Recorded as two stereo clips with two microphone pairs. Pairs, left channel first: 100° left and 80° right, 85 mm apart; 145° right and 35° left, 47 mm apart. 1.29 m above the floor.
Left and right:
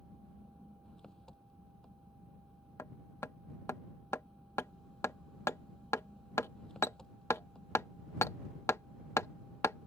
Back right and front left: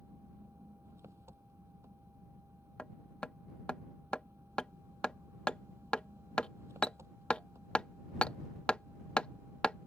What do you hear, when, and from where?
0.0 s an engine running: 15° left
2.8 s hammering: 155° left